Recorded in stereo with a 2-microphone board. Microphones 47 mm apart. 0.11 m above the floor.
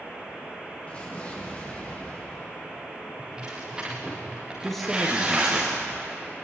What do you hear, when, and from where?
0.9 s an explosion: 30° left (ahead or behind), 7 m
3.2 s tearing paper: 15° right (ahead or behind), 5.5 m
4.6 s a man speaking: 5° left (ahead or behind), 3.5 m